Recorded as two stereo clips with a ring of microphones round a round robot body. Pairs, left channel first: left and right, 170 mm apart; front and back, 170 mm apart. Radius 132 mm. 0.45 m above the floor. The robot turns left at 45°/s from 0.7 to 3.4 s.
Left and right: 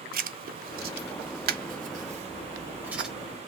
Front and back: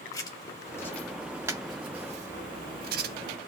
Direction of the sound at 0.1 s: 70° right.